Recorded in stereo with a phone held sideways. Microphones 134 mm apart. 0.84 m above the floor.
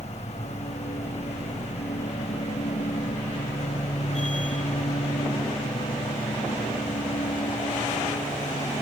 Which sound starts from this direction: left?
A machine running, at 0.0 s.